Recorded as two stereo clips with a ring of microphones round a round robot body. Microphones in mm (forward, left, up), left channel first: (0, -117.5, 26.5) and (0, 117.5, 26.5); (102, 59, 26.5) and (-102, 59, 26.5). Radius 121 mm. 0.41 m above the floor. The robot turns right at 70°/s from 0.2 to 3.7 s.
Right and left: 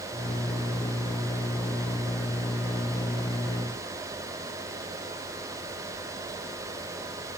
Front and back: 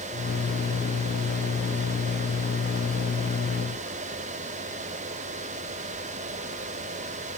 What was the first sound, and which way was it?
Only background noise.